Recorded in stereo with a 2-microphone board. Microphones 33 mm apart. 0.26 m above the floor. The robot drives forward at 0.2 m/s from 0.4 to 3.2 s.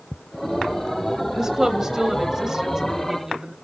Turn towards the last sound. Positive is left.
turn(degrees=-15)  # may be behind; listen again after turning